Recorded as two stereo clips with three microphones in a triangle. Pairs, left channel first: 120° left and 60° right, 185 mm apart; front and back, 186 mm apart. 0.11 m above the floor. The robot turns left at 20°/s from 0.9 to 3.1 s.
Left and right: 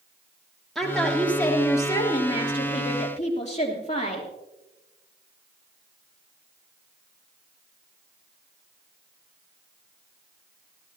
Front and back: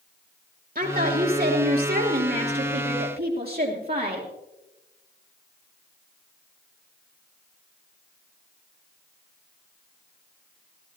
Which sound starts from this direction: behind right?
A woman speaking, at 0.8 s.